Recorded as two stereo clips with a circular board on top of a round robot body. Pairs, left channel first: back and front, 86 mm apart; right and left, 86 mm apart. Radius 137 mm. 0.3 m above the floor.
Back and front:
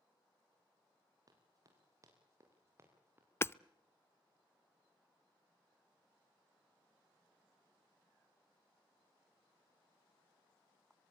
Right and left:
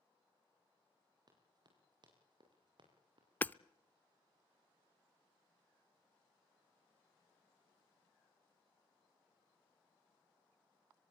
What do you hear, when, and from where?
1.3 s running footsteps: 50° left, 7.5 m; by 3.3 s 65° left, 7.5 m
3.4 s hammering: 145° right, 0.7 m